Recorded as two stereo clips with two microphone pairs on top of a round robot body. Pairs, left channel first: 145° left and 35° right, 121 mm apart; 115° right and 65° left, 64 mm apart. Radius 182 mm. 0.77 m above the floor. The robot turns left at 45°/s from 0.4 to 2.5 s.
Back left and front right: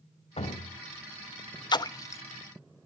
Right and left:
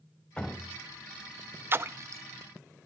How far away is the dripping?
About 1.9 m.